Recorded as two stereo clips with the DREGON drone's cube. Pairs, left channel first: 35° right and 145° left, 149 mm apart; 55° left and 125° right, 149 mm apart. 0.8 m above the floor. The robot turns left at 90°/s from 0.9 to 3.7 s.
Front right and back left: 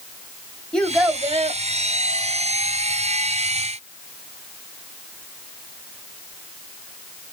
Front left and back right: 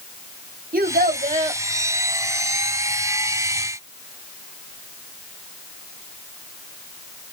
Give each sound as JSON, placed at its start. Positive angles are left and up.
{"t": 0.7, "sound": "a child speaking", "azimuth_deg": -120, "distance_m": 0.8}